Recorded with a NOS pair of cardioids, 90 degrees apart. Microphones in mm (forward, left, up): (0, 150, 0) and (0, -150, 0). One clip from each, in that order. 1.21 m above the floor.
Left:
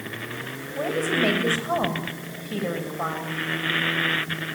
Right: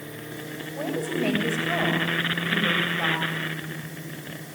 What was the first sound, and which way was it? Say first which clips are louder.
A woman speaking: left 5 dB; 30° left.